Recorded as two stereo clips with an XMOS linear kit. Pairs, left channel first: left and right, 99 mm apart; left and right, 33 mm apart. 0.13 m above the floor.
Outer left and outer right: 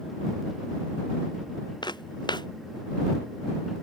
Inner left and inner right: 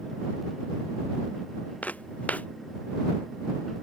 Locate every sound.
1.8 s footsteps: 50° left (ahead or behind)